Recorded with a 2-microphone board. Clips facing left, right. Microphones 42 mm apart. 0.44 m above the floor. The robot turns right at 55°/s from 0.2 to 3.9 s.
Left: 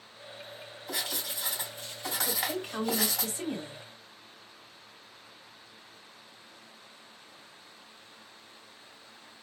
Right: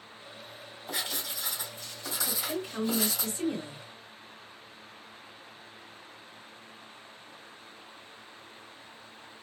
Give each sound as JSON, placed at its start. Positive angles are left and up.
{"t": 0.9, "sound": "writing", "azimuth_deg": -10, "distance_m": 3.0}
{"t": 2.2, "sound": "a woman speaking", "azimuth_deg": 100, "distance_m": 2.5}